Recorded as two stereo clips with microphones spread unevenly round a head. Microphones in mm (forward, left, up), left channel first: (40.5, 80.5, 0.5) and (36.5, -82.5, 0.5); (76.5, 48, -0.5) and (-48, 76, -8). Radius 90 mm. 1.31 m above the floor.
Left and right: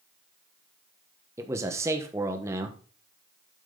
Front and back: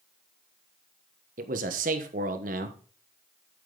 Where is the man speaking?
165° right, 1.2 m.